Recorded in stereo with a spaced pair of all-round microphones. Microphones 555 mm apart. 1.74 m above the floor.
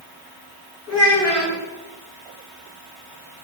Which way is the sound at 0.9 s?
5° right (ahead or behind).